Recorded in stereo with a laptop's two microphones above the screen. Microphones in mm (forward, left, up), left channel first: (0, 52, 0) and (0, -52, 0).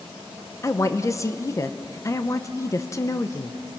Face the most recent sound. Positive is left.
turn(degrees=30)  # may be behind; listen again after turning